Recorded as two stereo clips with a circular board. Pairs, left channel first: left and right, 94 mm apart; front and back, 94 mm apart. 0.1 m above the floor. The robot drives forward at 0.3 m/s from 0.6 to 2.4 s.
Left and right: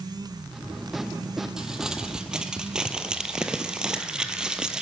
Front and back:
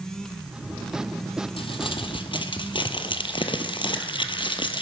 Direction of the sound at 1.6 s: 5° right.